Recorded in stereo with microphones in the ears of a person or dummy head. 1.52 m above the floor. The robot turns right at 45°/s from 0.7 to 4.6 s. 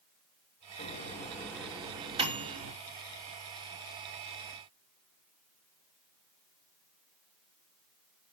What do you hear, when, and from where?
0.8 s a microwave: 35° left (ahead or behind), 3 m; by 2.7 s 50° right (ahead or behind), 3 m